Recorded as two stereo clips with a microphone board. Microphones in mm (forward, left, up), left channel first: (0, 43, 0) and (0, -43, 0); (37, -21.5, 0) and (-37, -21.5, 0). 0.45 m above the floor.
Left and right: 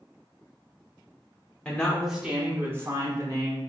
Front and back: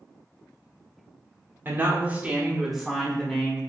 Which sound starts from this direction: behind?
A woman speaking, at 1.6 s.